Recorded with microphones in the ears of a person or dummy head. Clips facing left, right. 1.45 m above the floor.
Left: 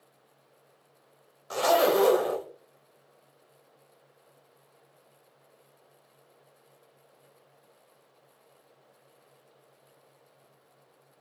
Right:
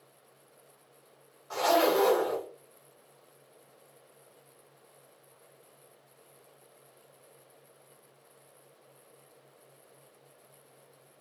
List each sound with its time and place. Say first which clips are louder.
1.5 s a zipper: left 2 dB; 50° left (ahead or behind), 1.0 m